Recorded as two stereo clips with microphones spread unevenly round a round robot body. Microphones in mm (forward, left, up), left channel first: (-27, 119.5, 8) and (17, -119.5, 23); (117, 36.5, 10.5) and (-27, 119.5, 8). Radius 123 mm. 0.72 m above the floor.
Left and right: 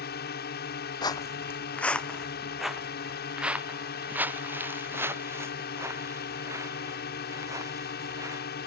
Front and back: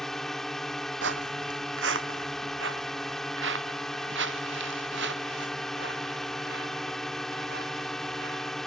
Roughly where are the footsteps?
Behind.